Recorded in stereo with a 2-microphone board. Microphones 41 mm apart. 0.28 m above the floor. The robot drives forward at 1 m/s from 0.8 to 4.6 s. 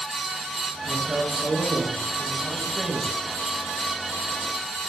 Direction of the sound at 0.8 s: 5° right (ahead or behind).